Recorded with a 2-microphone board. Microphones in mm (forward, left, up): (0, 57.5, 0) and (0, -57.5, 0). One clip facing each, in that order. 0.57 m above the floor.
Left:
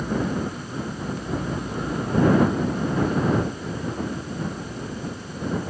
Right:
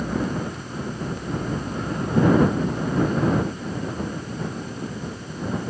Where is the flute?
I don't hear a flute.